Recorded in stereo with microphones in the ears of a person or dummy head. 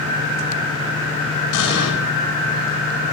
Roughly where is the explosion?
Left.